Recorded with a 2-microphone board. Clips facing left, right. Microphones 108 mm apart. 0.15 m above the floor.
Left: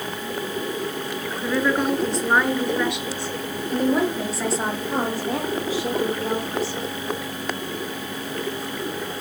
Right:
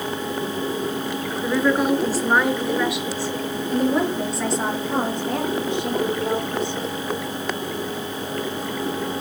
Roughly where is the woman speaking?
Centre.